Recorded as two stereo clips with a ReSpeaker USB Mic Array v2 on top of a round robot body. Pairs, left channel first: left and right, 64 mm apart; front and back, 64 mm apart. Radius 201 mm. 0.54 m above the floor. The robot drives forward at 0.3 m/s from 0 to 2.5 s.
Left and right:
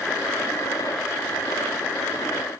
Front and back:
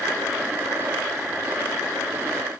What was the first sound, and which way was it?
Only background noise.